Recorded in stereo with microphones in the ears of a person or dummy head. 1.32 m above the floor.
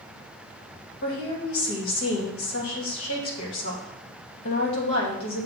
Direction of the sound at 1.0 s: 75° left (ahead or behind).